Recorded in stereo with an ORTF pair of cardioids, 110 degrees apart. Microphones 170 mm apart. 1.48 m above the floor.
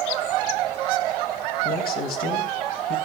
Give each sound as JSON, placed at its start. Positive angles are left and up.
{"t": 1.6, "sound": "a man speaking", "azimuth_deg": 60, "distance_m": 2.5}